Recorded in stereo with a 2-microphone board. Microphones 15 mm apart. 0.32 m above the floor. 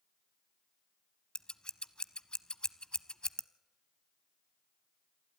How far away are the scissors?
About 0.6 m.